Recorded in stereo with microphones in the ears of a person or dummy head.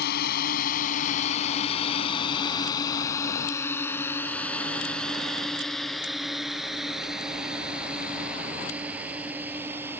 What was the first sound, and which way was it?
A drone, 60° left (ahead or behind).